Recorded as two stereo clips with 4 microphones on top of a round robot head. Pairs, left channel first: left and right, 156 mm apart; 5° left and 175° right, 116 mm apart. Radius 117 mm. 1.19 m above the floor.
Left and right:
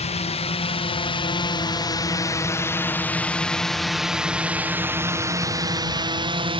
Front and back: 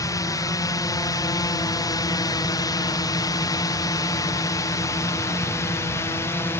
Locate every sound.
0.0 s a drone: 55° left; by 6.6 s 55° right